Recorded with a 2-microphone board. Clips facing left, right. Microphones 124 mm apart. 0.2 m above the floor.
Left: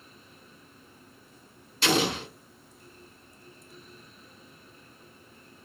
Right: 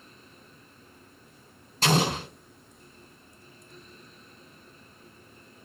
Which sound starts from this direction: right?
An explosion, at 1.8 s.